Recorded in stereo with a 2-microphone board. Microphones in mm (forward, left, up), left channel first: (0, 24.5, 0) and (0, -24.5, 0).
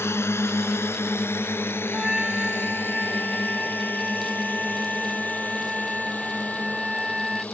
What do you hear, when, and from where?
0.0 s a drone: 60° left (ahead or behind); by 7.5 s 35° left (ahead or behind)
1.9 s a trumpet: 10° right (ahead or behind)